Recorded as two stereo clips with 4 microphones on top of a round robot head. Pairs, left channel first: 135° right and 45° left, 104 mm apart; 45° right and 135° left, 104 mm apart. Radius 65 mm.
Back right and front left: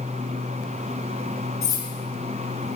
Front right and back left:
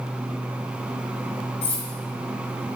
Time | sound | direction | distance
1.6 | cutlery clinking | 75° right | 1.2 m